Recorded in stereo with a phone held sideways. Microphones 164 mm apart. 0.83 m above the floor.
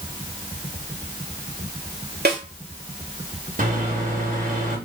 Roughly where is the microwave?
Right.